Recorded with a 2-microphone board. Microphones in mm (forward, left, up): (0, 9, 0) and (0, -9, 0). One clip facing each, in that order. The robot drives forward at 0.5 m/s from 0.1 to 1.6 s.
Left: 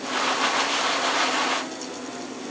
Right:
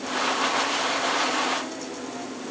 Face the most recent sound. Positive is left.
No sound to turn to.